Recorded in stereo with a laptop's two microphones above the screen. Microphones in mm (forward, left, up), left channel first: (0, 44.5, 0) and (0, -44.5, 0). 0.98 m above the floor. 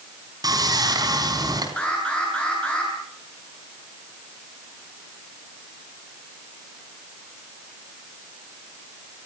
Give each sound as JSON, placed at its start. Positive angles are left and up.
{"t": 0.4, "sound": "sawing", "side_deg": -45, "distance_m": 4.0}
{"t": 1.8, "sound": "an alarm", "side_deg": 10, "distance_m": 9.0}